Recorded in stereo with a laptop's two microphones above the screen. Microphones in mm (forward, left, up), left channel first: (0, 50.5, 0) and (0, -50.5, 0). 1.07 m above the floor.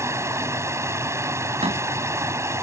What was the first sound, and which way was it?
Running water, 30° right (ahead or behind).